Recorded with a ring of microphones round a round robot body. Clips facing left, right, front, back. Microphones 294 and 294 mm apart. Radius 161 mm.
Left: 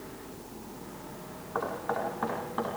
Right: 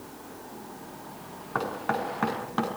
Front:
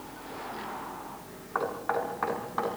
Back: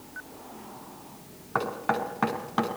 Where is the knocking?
145° right, 4 m.